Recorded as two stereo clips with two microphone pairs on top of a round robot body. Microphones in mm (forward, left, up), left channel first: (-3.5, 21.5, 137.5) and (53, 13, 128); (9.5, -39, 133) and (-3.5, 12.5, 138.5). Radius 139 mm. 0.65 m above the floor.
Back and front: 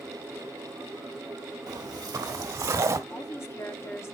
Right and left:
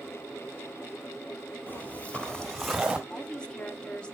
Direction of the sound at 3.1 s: 145° right.